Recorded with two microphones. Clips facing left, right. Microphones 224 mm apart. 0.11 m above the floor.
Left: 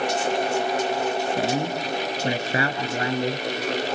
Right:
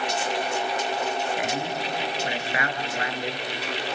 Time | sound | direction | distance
1.4 | a man speaking | 35° left (ahead or behind) | 1.9 m